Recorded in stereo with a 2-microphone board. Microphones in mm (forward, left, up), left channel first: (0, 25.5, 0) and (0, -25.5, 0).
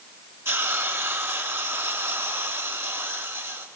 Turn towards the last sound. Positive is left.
turn(degrees=-60)  # may be behind; listen again after turning